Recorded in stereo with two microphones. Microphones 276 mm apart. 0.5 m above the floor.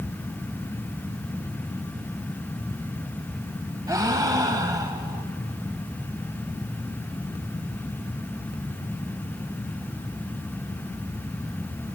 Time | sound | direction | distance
3.9 | a gasp | 15° right (ahead or behind) | 0.8 m